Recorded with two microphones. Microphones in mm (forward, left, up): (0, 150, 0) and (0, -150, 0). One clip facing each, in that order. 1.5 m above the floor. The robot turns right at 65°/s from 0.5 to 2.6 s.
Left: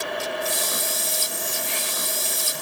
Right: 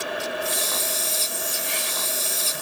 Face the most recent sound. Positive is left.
No sound to turn to.